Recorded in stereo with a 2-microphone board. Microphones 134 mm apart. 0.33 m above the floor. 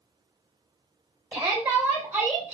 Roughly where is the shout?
Centre.